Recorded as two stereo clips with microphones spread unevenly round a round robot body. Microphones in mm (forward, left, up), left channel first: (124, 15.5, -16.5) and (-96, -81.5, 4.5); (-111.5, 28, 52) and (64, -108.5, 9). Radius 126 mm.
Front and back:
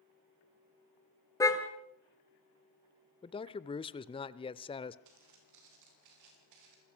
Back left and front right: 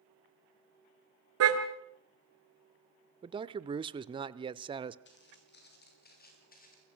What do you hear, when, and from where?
1.4 s a car horn: 55° right, 2.5 m
3.2 s a man speaking: 15° right, 0.8 m
5.0 s footsteps: straight behind, 7.5 m; by 6.9 s 165° right, 7 m